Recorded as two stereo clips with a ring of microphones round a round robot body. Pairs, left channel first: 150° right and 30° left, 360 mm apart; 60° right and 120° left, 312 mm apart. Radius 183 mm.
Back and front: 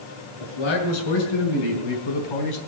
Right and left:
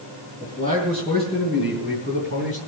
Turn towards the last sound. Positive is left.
turn(degrees=-130)